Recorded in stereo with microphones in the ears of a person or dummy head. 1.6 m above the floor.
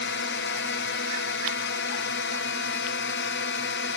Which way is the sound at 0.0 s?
50° left (ahead or behind).